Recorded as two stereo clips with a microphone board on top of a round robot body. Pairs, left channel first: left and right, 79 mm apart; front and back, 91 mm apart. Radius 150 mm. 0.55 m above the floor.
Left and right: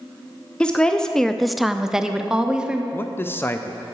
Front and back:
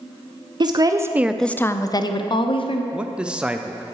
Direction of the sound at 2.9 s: 110° left.